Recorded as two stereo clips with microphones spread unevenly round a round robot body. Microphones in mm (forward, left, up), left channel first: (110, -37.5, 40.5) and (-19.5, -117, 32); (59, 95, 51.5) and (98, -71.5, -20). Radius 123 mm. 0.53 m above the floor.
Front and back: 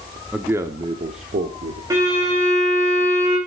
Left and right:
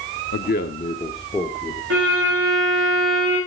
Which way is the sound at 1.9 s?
75° right.